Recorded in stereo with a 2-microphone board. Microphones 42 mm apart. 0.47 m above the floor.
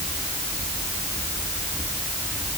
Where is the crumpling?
No crumpling in this recording.